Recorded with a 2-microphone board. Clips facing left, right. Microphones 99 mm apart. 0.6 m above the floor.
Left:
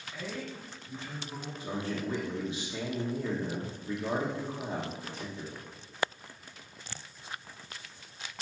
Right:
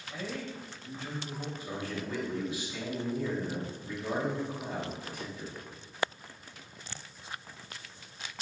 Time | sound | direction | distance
0.1 | a man speaking | 75° right (ahead or behind) | 2.5 m
1.6 | a man speaking | 25° left (ahead or behind) | 1.3 m